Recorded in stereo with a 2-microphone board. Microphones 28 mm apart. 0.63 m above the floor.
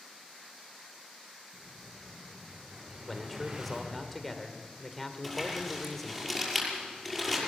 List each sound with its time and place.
1.5 s an explosion: 30° right (ahead or behind), 8 m
3.1 s a man speaking: 5° left (ahead or behind), 1.8 m
5.2 s crumpling: centre (ahead or behind), 6 m